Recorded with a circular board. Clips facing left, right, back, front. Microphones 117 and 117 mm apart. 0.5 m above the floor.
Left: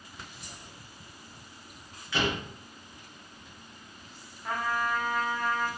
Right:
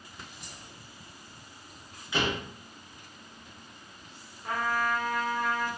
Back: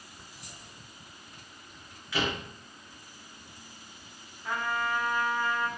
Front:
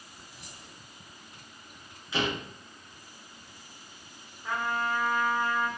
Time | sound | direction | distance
0.3 | keys jangling | 5° right | 1.2 m
2.1 | a door slam | 40° right | 0.8 m
4.4 | a trumpet | 35° right | 1.5 m